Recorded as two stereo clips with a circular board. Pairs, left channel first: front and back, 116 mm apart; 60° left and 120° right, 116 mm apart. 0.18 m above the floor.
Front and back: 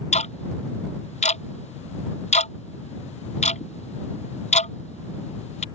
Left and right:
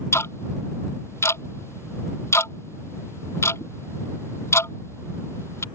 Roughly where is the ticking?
Ahead.